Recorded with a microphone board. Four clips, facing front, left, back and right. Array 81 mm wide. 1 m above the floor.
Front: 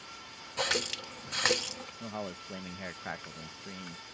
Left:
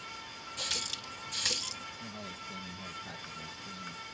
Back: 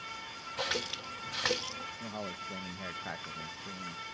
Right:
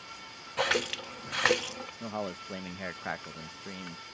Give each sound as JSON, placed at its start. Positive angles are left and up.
{"t": 0.6, "sound": "a running tap", "azimuth_deg": -75}
{"t": 2.0, "sound": "a man speaking", "azimuth_deg": -75}